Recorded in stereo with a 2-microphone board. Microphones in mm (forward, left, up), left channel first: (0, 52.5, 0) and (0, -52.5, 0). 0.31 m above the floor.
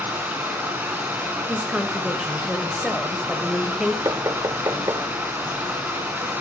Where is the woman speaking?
5° right (ahead or behind), 1.5 m.